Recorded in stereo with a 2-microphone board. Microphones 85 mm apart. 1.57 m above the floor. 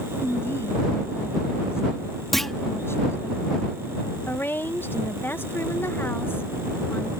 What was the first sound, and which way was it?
A woman speaking, 30° left (ahead or behind).